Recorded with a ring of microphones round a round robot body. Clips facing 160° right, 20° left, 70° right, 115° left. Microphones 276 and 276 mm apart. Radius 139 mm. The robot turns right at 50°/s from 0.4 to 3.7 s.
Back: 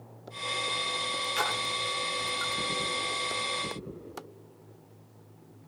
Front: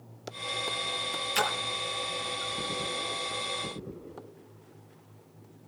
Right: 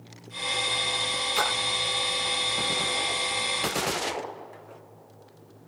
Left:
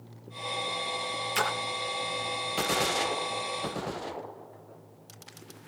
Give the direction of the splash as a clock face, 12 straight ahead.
10 o'clock.